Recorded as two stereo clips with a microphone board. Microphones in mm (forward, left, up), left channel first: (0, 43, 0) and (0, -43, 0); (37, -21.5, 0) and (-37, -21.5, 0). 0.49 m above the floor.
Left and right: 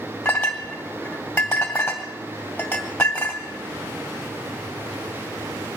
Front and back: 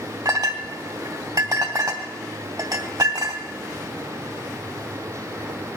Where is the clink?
160° left, 2 m.